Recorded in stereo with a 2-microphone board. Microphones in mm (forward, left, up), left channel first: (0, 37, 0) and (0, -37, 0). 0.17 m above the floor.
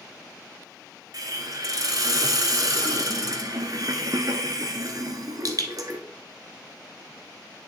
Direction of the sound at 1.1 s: 55° right (ahead or behind).